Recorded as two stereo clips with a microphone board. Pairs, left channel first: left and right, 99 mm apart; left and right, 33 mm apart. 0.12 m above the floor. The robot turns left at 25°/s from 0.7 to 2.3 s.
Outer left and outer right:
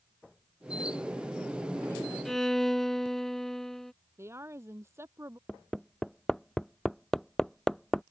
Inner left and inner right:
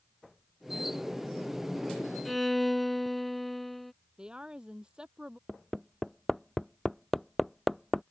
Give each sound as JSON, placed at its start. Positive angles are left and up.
{"t": 2.2, "sound": "a violin", "side_deg": 5}
{"t": 4.2, "sound": "a woman speaking", "side_deg": -25}
{"t": 5.5, "sound": "hammering", "side_deg": 5}